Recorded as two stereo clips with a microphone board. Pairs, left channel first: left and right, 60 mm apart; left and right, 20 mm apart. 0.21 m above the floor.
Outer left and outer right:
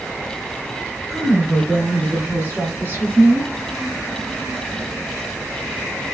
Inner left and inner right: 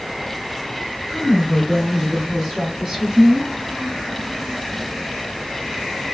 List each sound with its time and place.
1.1 s a woman speaking: 5° right (ahead or behind), 2 m; by 3.5 s 40° right (ahead or behind), 1.5 m